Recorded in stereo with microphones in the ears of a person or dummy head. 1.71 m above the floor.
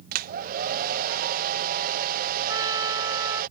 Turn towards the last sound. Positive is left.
turn(degrees=-20)  # may be behind; listen again after turning